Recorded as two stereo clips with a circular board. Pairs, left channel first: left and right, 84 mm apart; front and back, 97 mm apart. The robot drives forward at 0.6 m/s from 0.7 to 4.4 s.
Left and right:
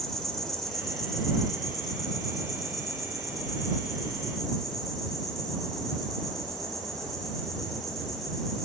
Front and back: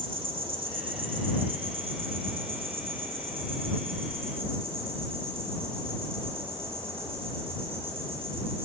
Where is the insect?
175° left, 2.0 m; by 8.7 s straight behind, 4 m.